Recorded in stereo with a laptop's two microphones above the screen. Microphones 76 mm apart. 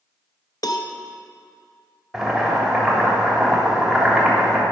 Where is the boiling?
Centre (ahead or behind), 3.5 m.